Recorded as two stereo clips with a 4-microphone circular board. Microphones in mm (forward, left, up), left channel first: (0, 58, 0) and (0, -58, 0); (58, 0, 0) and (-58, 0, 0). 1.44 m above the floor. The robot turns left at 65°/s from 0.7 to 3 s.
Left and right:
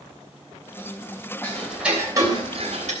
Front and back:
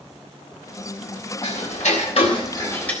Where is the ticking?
20° left, 3.5 m; by 2.9 s 75° right, 3.5 m.